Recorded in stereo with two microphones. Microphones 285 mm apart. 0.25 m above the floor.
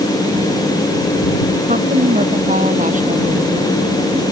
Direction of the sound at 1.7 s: 25° right (ahead or behind).